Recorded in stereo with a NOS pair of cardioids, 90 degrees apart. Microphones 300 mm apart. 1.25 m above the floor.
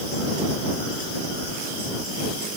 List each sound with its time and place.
Only background noise.